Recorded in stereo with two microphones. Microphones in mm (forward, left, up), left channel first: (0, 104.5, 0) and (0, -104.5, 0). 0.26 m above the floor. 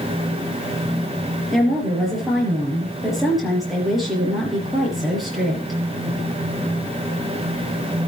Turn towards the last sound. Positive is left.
turn(degrees=0)  # may be behind; listen again after turning